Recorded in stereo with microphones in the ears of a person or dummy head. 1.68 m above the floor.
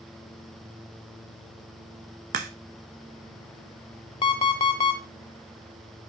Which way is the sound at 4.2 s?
25° left (ahead or behind).